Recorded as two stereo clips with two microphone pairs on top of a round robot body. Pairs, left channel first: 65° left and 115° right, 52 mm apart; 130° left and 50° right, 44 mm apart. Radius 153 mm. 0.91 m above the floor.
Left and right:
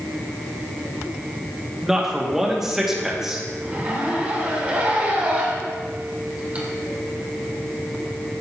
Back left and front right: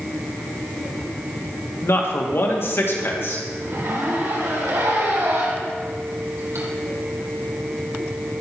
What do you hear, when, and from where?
1.8 s a man speaking: 160° left, 2.5 m
3.6 s a zipper: 55° right, 3 m